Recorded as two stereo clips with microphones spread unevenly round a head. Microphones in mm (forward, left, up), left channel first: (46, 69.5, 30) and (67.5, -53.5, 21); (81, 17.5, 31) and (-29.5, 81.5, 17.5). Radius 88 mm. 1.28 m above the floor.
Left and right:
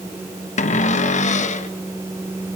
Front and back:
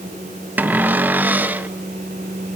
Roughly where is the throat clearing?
I don't hear throat clearing.